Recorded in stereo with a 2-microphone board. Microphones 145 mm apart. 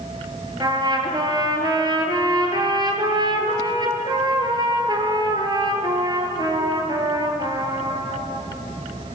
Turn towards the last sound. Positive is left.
turn(degrees=-30)  # may be behind; listen again after turning